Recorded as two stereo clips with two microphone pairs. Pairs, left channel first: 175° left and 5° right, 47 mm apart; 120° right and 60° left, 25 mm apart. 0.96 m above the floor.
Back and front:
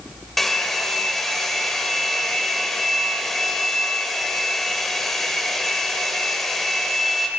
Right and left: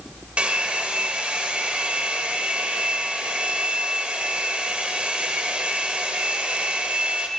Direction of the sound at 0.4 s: 90° left.